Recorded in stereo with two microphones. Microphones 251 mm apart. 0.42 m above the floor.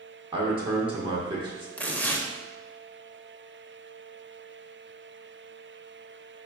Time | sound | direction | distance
0.3 | a man speaking | 20° right (ahead or behind) | 0.8 m
1.8 | tearing paper | 5° left (ahead or behind) | 0.5 m